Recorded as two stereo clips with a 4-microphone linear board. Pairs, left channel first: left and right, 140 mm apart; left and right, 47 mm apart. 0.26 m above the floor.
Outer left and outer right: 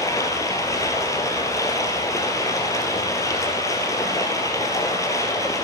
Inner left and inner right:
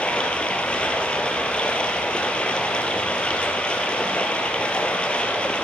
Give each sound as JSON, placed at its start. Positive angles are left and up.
{"t": 0.0, "sound": "running water", "side_deg": 25, "distance_m": 2.5}